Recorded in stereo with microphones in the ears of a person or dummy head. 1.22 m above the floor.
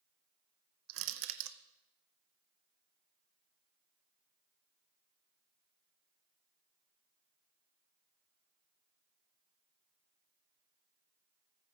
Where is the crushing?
60° right (ahead or behind), 0.8 m.